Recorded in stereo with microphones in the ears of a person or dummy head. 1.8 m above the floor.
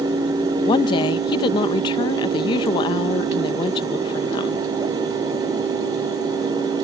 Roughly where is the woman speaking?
Centre.